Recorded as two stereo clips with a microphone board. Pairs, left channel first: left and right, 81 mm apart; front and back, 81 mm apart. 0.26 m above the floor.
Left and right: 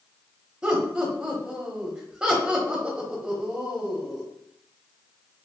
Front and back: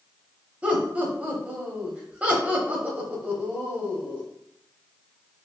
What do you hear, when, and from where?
0.6 s laughter: 150° right, 0.9 m